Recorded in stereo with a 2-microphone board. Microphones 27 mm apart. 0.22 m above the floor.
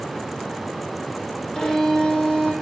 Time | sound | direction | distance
1.6 | a violin | 10° left (ahead or behind) | 3.5 m